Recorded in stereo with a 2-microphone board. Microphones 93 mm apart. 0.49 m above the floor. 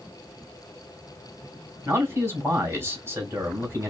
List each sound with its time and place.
1.9 s a man speaking: 25° right (ahead or behind), 3 m